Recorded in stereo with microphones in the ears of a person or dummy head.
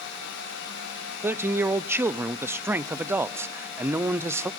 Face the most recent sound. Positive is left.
turn(degrees=0)  # may be behind; listen again after turning